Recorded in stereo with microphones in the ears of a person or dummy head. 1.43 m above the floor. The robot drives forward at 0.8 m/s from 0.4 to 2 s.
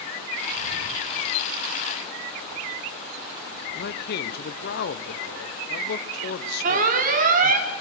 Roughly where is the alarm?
Right.